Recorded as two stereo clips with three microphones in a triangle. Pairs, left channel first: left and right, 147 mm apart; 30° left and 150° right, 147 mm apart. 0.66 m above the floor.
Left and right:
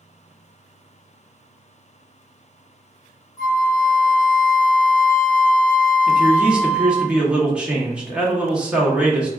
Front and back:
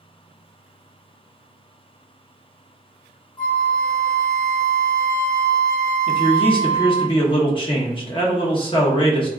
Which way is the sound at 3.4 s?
50° left.